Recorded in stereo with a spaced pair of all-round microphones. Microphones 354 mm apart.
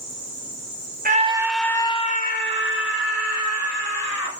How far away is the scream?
About 1.2 m.